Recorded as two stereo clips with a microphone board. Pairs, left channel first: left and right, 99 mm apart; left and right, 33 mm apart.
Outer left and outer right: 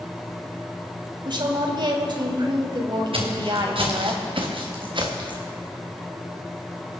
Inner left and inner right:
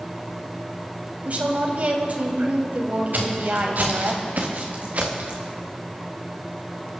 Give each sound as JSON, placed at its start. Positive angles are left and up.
{"t": 1.2, "sound": "a woman speaking", "side_deg": -50, "distance_m": 2.5}
{"t": 3.1, "sound": "footsteps", "side_deg": -65, "distance_m": 3.5}